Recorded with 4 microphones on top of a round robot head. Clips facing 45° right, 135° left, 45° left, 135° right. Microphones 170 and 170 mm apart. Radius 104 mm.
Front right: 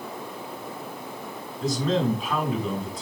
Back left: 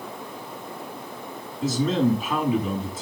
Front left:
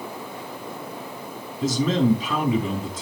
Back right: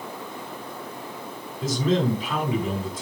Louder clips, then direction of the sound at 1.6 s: Back left 2 dB, front left 2 dB; 50° left.